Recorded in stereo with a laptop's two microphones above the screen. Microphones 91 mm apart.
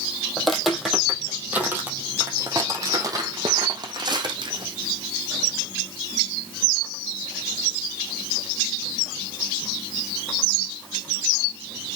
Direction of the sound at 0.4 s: 5° left (ahead or behind).